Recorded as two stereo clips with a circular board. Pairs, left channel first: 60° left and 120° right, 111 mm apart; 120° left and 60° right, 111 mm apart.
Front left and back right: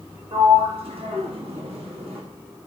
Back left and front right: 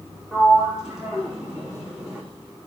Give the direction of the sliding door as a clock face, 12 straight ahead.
5 o'clock.